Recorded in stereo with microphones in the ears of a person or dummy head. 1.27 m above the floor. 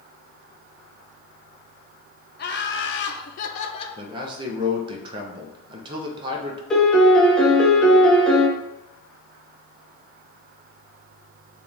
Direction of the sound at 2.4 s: 55° left (ahead or behind).